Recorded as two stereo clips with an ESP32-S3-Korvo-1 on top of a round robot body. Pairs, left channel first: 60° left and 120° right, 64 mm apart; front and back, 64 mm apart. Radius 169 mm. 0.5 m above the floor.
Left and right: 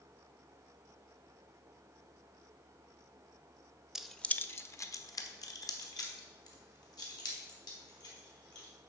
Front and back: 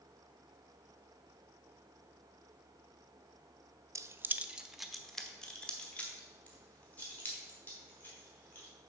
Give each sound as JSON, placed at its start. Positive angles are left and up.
{"t": 4.0, "sound": "keys jangling", "azimuth_deg": 160, "distance_m": 0.6}